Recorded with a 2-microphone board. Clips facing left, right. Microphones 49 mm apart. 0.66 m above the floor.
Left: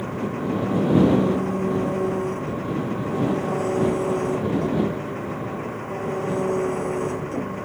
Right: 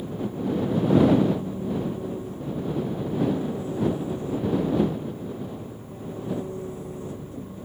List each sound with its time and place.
0.0 s an engine running: 90° left